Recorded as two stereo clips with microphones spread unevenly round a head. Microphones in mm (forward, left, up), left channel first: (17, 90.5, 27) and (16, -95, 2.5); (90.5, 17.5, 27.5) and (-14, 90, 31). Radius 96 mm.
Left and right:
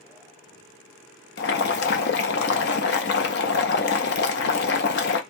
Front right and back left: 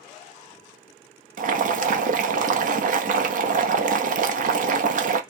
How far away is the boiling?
About 0.7 m.